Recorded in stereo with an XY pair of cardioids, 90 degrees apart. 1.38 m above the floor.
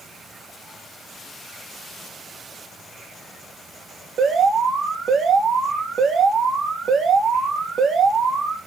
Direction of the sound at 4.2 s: 60° right.